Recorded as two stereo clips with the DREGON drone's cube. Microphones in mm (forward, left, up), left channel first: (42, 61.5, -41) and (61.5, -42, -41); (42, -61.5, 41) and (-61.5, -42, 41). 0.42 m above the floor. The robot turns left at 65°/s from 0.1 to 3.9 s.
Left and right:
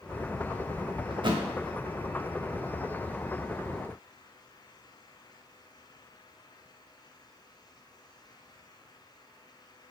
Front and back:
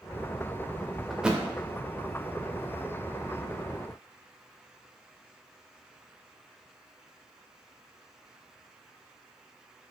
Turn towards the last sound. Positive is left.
turn(degrees=80)